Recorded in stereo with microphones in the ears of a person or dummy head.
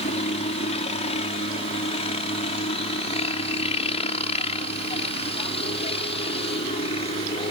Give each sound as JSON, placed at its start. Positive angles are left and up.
{"t": 0.0, "sound": "a helicopter", "side_deg": 35}